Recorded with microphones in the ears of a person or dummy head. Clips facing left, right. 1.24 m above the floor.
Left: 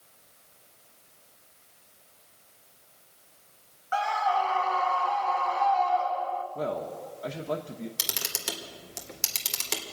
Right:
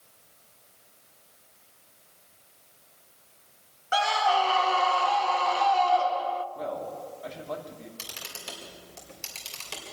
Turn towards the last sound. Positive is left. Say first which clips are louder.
# left 5 dB
turn(degrees=60)  # may be behind; listen again after turning